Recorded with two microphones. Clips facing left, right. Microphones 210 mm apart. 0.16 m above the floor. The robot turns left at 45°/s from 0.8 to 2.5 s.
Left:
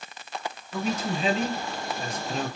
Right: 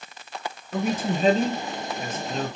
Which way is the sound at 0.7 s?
115° right.